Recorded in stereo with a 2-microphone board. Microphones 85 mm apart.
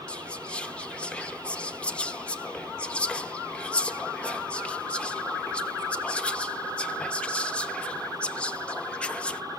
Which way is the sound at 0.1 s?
15° left (ahead or behind).